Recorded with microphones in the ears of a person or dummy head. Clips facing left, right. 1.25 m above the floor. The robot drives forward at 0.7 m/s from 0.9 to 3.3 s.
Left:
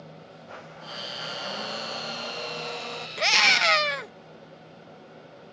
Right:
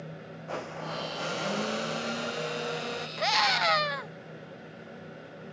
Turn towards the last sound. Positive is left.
turn(degrees=30)  # may be behind; listen again after turning